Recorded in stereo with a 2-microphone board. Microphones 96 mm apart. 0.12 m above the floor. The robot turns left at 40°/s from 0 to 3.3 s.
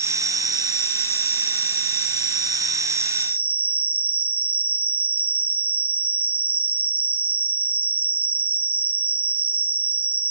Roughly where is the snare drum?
I don't hear a snare drum.